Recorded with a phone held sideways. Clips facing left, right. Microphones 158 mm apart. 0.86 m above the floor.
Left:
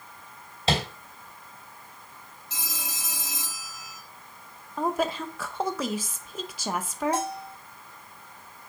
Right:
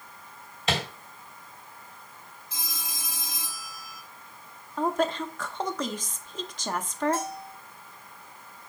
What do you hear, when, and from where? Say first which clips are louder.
0.7 s tapping: left 3 dB; 30° left (ahead or behind), 3.5 m
2.5 s a phone ringing: left 2 dB; 85° left, 2.5 m
4.8 s a woman speaking: right 1 dB; 10° left (ahead or behind), 0.7 m
7.1 s a bell: left 2 dB; 75° left (ahead or behind), 1.7 m